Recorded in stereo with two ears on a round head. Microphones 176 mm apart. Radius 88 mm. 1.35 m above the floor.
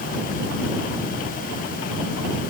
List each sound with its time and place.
Only background noise.